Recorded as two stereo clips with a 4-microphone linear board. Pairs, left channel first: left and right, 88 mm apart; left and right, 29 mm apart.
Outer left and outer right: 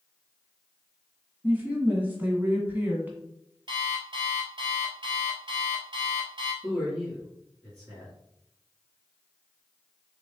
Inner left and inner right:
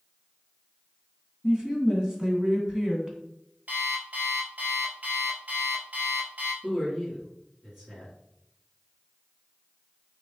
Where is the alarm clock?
60° right (ahead or behind), 1.4 m.